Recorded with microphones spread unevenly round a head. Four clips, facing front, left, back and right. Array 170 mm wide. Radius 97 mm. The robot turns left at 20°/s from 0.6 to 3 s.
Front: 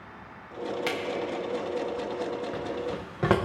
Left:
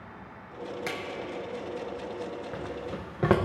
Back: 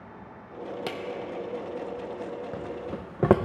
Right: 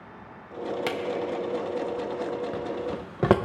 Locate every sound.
0.9 s a drawer: 110° right, 0.5 m; by 3.4 s 155° right, 0.5 m